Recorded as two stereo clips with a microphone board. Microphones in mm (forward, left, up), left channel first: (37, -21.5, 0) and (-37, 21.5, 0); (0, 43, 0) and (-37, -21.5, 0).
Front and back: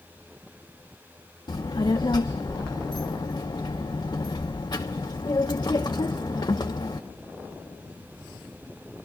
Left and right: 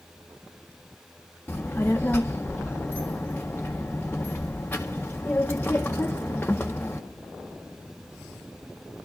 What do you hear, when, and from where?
1.5 s a child speaking: 5° right, 0.6 m